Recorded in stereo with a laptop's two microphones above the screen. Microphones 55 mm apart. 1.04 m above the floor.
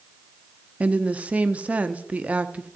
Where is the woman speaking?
25° right (ahead or behind), 0.7 m.